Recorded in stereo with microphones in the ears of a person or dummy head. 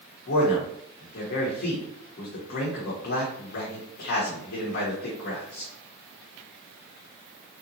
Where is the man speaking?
65° left (ahead or behind), 1.0 m.